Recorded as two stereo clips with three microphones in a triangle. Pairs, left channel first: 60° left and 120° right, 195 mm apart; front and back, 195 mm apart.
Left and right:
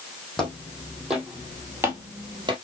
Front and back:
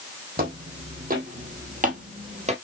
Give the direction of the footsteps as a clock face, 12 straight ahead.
7 o'clock.